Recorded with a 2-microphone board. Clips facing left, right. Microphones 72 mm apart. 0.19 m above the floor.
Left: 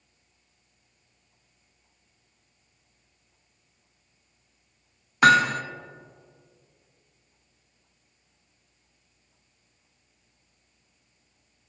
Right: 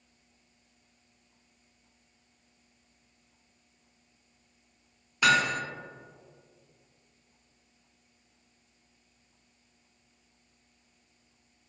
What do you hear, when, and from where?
5.2 s hammering: 50° left (ahead or behind), 0.6 m